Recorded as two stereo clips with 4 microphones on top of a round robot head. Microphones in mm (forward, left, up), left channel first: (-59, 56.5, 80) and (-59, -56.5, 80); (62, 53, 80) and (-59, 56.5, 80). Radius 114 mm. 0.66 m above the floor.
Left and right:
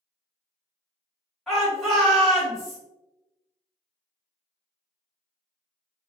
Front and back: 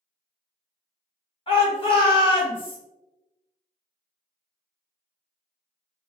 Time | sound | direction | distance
1.5 | a shout | straight ahead | 1.6 m